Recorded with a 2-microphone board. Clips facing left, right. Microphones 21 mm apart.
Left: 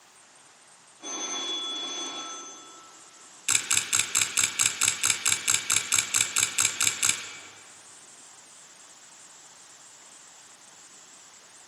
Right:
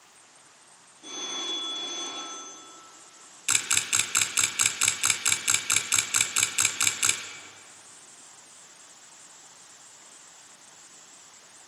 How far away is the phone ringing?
About 8 m.